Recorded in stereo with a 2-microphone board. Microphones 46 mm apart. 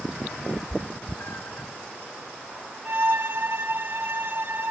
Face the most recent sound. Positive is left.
turn(degrees=-55)  # may be behind; listen again after turning